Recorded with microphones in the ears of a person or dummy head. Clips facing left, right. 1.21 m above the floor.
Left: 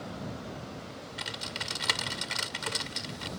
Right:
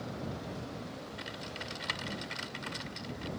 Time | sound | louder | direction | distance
1.2 | typing on a keyboard | left 1 dB | 60° left (ahead or behind) | ?